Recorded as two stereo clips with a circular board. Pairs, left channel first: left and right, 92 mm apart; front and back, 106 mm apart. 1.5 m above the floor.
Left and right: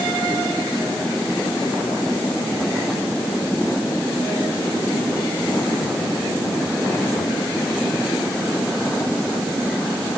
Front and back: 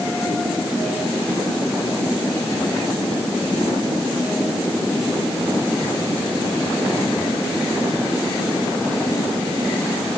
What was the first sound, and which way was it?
Only background noise.